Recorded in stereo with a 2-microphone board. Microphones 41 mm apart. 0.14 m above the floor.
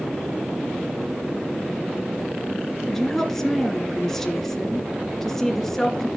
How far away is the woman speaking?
About 1.9 m.